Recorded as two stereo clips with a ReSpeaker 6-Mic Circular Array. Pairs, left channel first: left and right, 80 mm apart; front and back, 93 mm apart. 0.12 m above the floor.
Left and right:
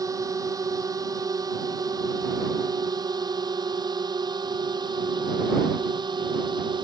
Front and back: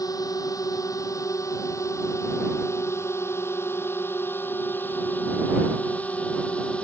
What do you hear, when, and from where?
0.0 s a drone: 50° right; by 6.8 s 75° right